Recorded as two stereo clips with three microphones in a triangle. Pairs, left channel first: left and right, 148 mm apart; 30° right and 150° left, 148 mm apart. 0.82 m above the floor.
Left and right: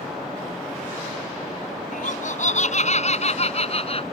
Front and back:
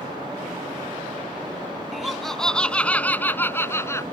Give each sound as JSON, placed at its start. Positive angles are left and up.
{"t": 1.9, "sound": "laughter", "azimuth_deg": 60}